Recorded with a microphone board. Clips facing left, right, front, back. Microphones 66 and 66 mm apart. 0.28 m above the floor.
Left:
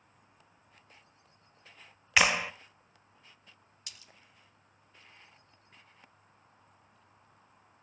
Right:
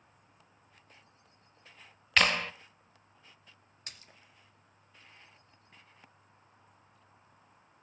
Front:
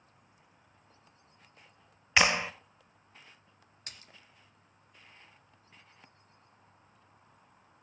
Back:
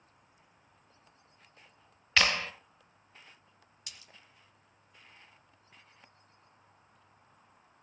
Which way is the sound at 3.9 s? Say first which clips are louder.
Right 2 dB, front 2 dB; 45° right.